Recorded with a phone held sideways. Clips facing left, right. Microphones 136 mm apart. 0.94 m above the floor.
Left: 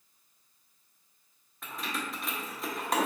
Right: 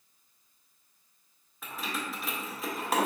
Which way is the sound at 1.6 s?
Centre (ahead or behind).